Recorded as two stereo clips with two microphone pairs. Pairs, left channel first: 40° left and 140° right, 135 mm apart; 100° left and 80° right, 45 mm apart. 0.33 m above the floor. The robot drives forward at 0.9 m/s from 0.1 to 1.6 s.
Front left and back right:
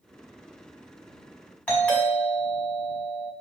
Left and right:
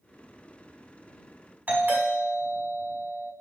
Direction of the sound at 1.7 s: 40° right.